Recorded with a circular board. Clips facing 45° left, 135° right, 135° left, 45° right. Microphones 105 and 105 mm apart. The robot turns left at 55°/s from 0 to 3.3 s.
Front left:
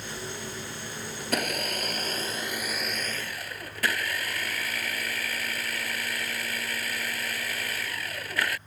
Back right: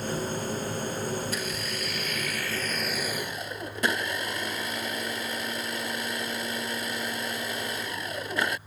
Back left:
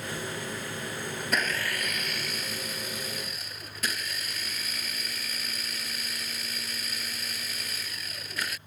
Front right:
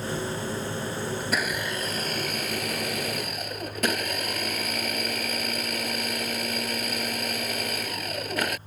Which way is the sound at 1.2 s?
50° left.